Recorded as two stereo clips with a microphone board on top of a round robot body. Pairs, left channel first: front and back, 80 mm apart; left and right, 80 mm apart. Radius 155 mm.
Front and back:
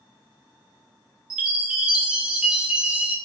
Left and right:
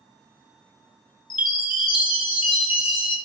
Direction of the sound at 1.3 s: 100° left.